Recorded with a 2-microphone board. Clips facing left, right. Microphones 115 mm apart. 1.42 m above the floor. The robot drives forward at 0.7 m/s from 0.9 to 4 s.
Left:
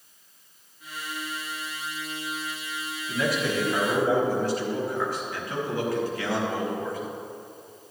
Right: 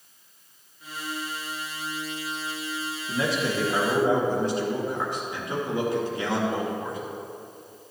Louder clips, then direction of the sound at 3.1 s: Even; 30° right (ahead or behind).